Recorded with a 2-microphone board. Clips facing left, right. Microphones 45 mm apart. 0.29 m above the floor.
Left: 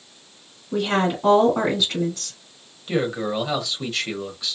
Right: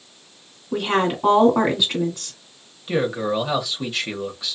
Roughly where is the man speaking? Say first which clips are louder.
Right 2 dB; centre.